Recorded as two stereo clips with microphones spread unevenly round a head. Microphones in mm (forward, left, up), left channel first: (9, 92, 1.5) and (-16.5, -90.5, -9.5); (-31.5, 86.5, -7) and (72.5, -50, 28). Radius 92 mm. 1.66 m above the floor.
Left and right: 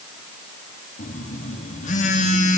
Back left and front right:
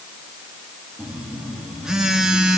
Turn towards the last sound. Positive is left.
turn(degrees=30)